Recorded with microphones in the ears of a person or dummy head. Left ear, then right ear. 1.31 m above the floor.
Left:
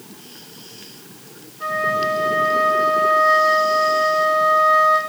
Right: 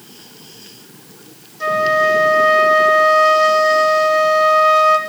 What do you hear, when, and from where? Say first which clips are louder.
1.6 s a flute: right 6 dB; 80° right, 1.3 m